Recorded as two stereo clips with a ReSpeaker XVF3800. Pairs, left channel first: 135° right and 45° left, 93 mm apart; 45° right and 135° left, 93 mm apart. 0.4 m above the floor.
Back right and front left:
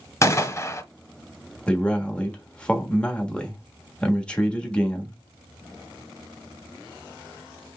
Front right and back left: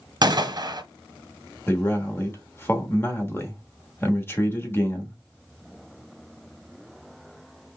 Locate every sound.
0.2 s a gunshot: 170° left, 0.8 m
1.7 s a man speaking: 70° right, 1.1 m